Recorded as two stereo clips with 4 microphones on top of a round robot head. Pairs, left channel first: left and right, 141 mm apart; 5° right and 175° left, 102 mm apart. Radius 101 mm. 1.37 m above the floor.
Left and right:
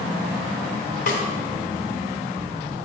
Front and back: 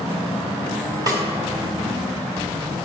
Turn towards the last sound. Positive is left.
turn(degrees=120)